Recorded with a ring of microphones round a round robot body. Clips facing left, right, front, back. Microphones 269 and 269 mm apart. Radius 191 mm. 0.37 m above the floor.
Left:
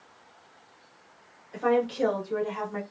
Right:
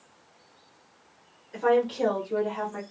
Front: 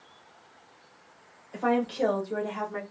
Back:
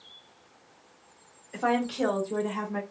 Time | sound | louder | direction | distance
1.5 | a woman speaking | right 2 dB, front 1 dB | 175° left | 1.3 m